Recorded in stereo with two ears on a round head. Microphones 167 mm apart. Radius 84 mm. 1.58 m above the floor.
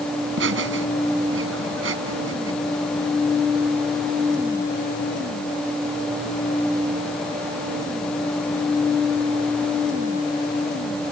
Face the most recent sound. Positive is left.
turn(degrees=-80)